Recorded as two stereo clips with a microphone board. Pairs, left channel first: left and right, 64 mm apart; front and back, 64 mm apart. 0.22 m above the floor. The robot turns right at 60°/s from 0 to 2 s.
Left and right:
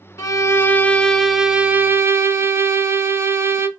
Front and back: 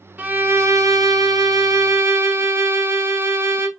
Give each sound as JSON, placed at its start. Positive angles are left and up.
{"t": 0.2, "sound": "a violin", "azimuth_deg": 120, "distance_m": 0.6}